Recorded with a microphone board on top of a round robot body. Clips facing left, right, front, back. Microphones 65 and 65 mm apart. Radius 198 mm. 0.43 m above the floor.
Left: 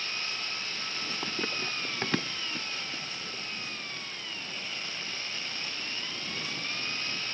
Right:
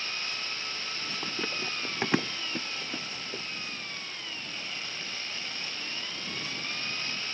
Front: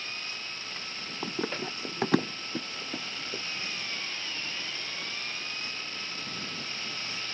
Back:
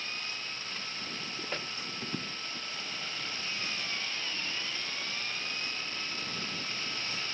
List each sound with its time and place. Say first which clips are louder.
1.2 s running footsteps: even, front 9 dB; 10° left; by 3.4 s 35° right